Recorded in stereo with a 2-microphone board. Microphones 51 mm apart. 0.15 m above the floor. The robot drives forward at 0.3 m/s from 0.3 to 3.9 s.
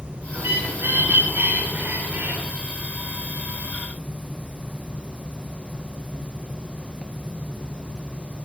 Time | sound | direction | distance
0.3 | a bird | 55° right (ahead or behind) | 6.5 m